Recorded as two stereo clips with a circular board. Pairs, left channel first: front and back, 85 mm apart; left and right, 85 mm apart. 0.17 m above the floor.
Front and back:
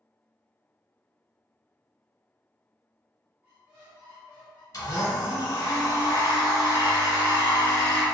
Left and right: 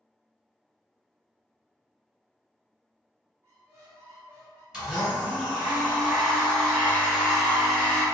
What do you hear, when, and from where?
3.4 s a squeak: 125° right, 1.2 m
4.7 s a blender: 10° right, 1.6 m